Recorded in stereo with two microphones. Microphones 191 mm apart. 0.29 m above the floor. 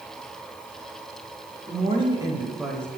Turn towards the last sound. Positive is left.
turn(degrees=10)  # may be behind; listen again after turning